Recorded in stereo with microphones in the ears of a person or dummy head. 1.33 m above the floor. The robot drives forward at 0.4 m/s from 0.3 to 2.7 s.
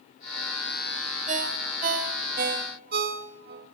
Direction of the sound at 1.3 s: 40° right (ahead or behind).